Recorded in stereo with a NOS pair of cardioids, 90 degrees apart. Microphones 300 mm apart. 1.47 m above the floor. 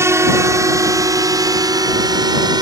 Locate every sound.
0.0 s a drone: 10° right; by 2.6 s 15° right